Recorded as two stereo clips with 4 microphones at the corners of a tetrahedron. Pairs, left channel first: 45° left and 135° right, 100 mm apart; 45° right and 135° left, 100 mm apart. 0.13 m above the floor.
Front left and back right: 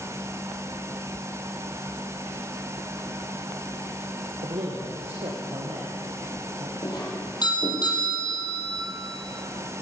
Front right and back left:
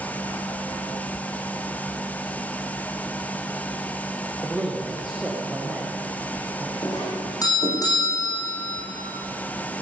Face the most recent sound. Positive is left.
turn(degrees=5)